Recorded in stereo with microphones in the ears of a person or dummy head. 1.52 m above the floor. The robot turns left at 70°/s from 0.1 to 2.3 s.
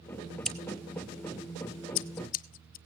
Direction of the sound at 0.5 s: Centre (ahead or behind).